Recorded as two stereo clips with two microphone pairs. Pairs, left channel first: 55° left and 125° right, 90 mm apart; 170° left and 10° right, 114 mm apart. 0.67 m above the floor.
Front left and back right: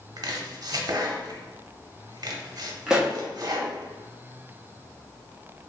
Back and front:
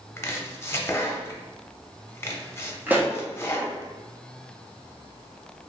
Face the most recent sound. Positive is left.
turn(degrees=-55)